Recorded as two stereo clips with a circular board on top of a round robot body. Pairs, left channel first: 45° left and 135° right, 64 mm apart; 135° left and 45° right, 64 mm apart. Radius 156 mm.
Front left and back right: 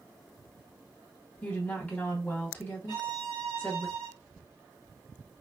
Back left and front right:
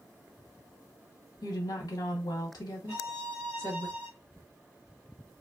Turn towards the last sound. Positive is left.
turn(degrees=-95)